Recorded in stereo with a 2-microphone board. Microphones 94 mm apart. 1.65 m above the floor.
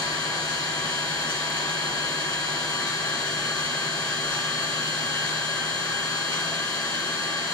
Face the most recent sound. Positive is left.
turn(degrees=55)  # may be behind; listen again after turning